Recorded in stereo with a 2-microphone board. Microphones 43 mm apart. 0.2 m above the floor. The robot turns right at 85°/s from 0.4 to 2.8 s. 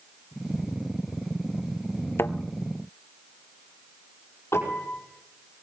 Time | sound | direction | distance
2.2 | a thud | 70° left (ahead or behind) | 0.7 m
4.5 | a piano | 75° left (ahead or behind) | 5 m